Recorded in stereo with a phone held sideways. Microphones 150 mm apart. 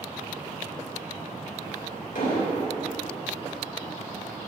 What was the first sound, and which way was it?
An explosion, 85° left.